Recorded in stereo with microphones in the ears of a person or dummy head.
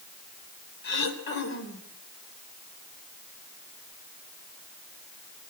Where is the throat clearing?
60° left (ahead or behind), 3.5 m.